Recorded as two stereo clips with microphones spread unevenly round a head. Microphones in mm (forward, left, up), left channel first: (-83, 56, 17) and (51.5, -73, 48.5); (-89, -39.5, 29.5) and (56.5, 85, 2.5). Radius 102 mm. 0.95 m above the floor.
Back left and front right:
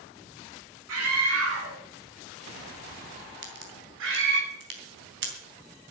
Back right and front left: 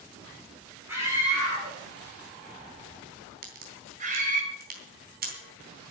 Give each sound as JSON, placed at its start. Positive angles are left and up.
{"t": 0.9, "sound": "a scream", "azimuth_deg": -40, "distance_m": 8.5}
{"t": 3.4, "sound": "a crack", "azimuth_deg": -10, "distance_m": 3.5}